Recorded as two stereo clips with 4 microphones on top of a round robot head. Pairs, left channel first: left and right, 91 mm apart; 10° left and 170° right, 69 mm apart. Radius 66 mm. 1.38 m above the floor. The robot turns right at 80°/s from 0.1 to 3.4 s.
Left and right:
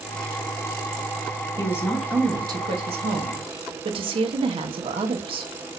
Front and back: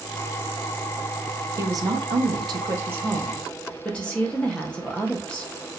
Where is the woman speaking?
145° left, 1.1 m; by 5.5 s 70° right, 1.1 m.